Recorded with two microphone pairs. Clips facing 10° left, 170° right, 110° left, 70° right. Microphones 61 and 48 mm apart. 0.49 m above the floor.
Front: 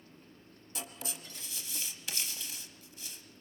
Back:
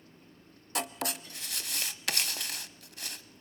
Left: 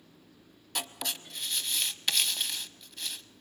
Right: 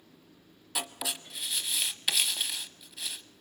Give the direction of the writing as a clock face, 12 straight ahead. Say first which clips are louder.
Back 10 dB, right 1 dB; 5 o'clock.